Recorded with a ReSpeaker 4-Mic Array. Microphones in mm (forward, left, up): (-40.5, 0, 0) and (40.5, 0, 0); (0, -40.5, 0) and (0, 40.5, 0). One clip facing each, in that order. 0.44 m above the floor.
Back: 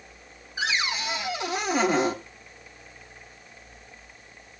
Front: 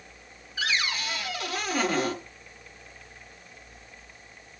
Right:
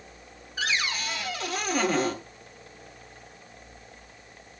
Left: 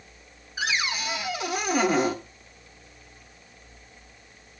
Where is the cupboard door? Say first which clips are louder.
Back 2 dB, left 1 dB; 145° left, 0.9 m.